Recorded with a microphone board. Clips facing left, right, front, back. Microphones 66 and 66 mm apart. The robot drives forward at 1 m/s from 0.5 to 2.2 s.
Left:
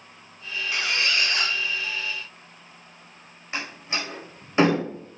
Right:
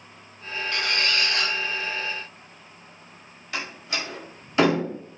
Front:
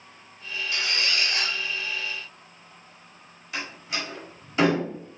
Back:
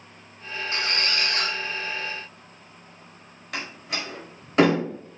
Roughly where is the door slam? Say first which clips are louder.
Even, even; behind left.